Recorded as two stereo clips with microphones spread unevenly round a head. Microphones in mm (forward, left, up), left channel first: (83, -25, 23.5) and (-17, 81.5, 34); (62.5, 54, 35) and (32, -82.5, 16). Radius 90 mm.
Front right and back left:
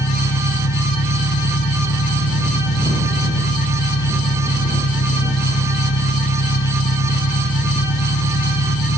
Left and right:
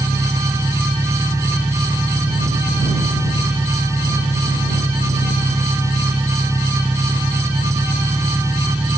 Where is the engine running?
30° right.